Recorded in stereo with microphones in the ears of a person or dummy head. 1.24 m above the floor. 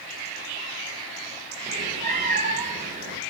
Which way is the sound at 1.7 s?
35° right (ahead or behind).